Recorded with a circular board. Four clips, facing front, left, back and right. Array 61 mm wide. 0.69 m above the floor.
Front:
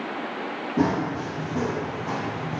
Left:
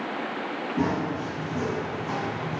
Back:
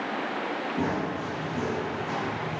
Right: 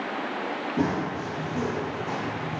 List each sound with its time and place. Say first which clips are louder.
0.8 s running footsteps: left 1 dB, front 8 dB; 10° right, 2 m; by 2.6 s straight ahead, 3 m